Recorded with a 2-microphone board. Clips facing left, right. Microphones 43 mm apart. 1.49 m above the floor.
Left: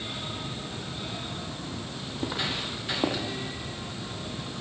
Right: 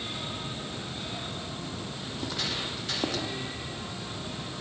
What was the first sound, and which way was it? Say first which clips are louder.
Footsteps: left 3 dB; 20° left (ahead or behind).